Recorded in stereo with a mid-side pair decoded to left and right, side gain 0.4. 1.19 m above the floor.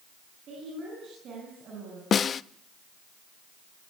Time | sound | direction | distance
0.5 | a woman speaking | 70° right | 10 m
2.1 | a snare drum | 55° left | 0.6 m